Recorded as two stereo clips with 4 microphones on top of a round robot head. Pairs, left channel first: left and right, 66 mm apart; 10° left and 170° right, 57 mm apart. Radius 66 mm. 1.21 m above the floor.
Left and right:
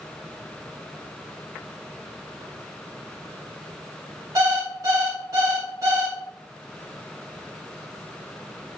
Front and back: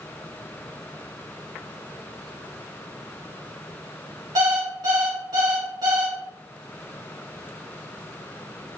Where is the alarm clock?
145° right, 1.4 m.